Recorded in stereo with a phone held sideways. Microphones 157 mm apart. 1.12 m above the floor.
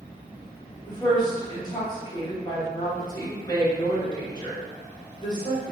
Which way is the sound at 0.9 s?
25° left (ahead or behind).